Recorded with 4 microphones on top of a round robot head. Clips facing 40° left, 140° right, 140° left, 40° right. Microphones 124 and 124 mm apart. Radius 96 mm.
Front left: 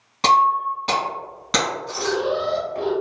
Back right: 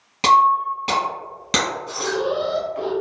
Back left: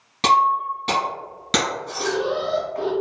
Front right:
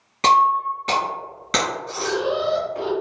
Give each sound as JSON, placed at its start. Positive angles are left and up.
{"t": 0.2, "sound": "breaking glass", "azimuth_deg": 180, "distance_m": 1.7}
{"t": 2.0, "sound": "an alarm", "azimuth_deg": 25, "distance_m": 1.2}